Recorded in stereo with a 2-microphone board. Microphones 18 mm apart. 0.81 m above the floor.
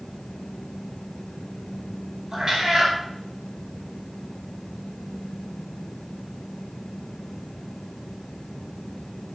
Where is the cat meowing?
45° right (ahead or behind), 2.5 m.